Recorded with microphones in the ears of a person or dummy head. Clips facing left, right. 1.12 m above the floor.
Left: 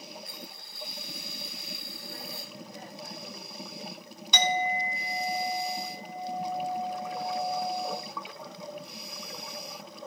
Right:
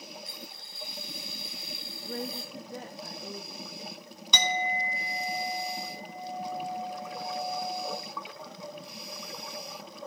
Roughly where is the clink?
Right.